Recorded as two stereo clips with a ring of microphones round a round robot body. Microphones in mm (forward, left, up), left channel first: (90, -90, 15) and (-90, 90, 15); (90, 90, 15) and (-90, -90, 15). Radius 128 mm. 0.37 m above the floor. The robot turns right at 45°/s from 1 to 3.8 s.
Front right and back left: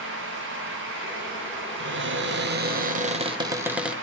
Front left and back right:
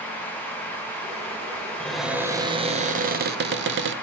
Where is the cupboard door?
130° left, 1.1 m; by 3.9 s 140° right, 1.1 m.